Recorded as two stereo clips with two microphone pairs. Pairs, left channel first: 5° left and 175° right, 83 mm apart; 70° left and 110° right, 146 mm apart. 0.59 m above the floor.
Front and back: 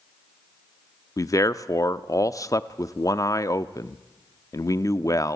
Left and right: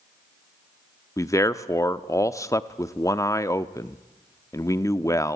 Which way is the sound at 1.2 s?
10° left.